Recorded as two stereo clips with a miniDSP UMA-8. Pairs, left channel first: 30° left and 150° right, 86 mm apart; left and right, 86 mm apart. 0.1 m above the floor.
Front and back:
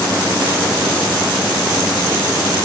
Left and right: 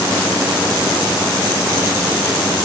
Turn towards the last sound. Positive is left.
No sound to turn to.